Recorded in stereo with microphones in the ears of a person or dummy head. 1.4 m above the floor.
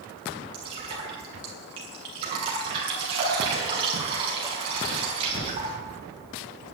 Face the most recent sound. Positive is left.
turn(degrees=-30)  # may be behind; listen again after turning